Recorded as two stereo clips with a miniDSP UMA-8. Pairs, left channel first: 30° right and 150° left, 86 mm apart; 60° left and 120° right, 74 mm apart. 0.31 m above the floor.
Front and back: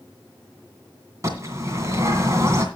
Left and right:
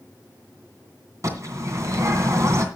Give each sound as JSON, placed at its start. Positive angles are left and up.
{"t": 1.2, "sound": "a bird", "azimuth_deg": -160, "distance_m": 2.5}